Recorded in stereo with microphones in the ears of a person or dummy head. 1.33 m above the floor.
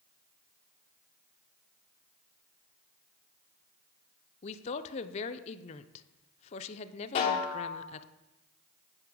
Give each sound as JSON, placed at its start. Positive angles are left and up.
{"t": 4.4, "sound": "a woman speaking", "side_deg": 35, "distance_m": 0.7}
{"t": 7.2, "sound": "a snare drum", "side_deg": 40, "distance_m": 1.1}